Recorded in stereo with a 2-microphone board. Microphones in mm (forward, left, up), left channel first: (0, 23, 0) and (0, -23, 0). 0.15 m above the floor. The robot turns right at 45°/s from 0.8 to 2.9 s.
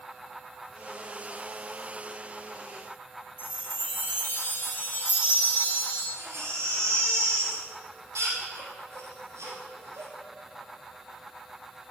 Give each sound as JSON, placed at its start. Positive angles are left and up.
{"t": 3.4, "sound": "a chime", "side_deg": 45, "distance_m": 4.5}
{"t": 6.2, "sound": "a baby crying", "side_deg": -80, "distance_m": 4.0}